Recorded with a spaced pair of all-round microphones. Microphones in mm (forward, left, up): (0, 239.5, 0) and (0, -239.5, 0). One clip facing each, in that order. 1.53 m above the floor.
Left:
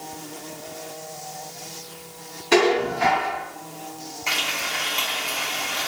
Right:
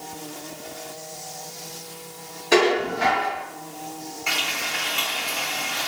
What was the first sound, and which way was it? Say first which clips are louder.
Dishes clattering: left 1 dB; 20° left (ahead or behind).